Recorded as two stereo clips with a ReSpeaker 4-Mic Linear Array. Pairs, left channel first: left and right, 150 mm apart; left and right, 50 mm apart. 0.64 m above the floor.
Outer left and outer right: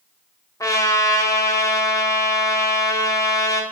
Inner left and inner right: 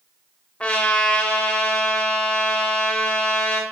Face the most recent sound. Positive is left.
turn(degrees=25)  # may be behind; listen again after turning